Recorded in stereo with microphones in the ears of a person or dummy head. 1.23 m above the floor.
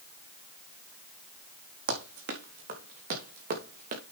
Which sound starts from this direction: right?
Running footsteps, at 1.9 s.